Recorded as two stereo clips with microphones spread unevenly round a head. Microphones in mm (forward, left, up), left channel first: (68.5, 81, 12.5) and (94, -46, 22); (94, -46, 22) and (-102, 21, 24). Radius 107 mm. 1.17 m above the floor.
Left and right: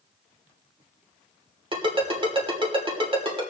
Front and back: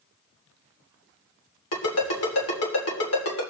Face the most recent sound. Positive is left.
turn(degrees=-30)